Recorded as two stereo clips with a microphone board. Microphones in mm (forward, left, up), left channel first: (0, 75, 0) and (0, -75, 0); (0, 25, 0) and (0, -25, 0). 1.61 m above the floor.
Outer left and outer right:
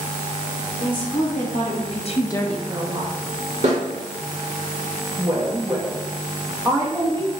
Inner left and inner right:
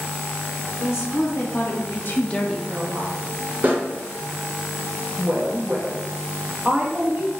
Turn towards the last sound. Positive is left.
turn(degrees=-25)  # may be behind; listen again after turning